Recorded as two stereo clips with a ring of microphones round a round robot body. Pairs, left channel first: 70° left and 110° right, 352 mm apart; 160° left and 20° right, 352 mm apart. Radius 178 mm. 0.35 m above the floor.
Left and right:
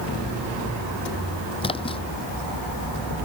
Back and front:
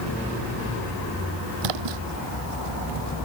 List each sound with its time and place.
1.6 s a splash: 10° right